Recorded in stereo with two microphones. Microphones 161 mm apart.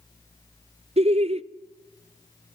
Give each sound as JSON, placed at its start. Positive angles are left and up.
{"t": 1.0, "sound": "laughter", "side_deg": -40, "distance_m": 0.6}